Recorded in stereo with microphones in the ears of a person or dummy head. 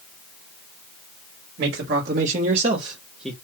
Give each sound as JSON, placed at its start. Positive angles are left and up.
{"t": 1.6, "sound": "a man speaking", "side_deg": -60, "distance_m": 1.6}